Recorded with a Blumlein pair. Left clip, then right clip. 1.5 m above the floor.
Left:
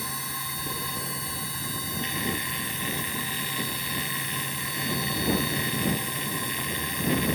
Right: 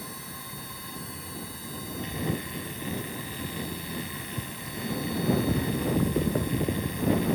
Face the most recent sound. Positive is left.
turn(degrees=25)